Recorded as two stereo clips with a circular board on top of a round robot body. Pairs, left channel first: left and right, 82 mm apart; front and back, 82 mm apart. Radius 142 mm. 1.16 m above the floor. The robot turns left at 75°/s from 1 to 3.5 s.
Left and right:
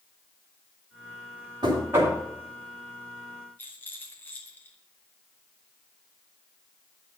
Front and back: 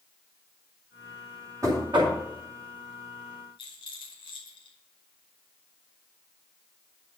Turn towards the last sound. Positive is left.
turn(degrees=20)